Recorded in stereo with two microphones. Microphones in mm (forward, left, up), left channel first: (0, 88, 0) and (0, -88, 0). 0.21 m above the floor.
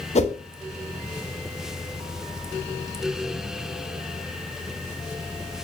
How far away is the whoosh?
About 0.5 m.